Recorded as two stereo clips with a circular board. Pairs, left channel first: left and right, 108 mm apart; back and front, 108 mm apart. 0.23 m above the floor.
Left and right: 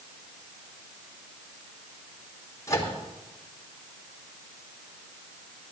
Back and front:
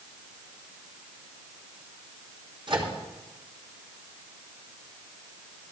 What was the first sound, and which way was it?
A microwave, 35° left.